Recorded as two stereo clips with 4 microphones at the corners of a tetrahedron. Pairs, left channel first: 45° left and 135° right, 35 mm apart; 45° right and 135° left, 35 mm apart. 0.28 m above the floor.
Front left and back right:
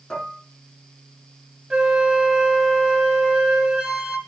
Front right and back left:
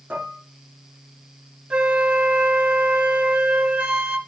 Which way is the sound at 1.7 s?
155° left.